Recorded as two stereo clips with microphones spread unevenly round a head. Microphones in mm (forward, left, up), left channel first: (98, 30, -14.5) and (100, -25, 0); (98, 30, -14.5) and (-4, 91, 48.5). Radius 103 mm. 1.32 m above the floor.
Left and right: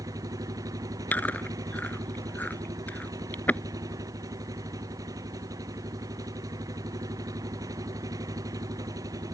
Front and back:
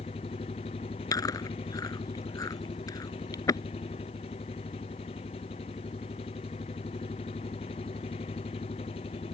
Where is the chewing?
30° left.